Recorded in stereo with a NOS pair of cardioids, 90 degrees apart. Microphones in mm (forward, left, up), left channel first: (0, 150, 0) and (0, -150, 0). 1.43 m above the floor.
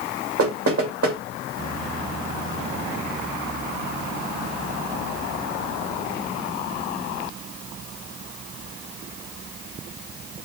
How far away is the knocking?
About 2.5 m.